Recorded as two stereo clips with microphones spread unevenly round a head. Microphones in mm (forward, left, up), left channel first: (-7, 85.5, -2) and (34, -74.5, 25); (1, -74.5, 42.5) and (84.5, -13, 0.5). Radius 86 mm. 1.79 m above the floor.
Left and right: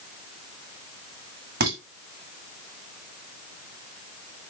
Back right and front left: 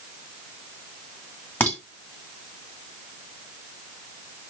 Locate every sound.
1.6 s dishes clattering: 85° right, 1.9 m